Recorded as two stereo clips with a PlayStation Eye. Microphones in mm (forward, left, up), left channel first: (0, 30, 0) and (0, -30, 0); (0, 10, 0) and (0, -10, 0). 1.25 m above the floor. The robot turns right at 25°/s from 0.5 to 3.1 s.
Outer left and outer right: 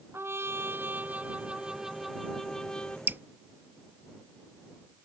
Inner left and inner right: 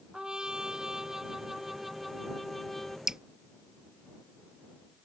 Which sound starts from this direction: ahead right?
A trumpet, at 0.1 s.